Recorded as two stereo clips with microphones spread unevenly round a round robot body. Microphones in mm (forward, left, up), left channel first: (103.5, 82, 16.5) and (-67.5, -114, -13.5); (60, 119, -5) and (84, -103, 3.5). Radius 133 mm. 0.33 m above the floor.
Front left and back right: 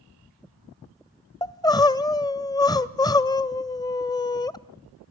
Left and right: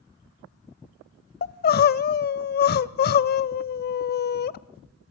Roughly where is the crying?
Behind left.